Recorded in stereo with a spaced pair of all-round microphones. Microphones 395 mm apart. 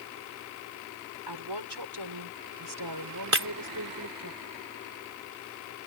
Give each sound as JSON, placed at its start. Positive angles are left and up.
{"t": 1.3, "sound": "a woman speaking", "side_deg": -85}
{"t": 3.3, "sound": "breaking glass", "side_deg": -40}